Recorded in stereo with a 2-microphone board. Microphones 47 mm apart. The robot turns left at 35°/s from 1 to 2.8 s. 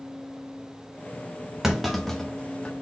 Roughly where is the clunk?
Centre.